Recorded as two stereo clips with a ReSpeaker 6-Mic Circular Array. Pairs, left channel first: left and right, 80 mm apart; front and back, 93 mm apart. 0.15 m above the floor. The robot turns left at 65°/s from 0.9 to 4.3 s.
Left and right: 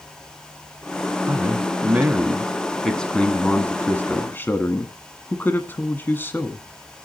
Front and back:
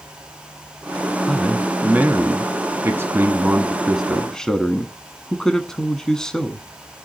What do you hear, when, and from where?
1.3 s a man speaking: 85° right, 1.2 m; by 6.7 s 75° left, 1.2 m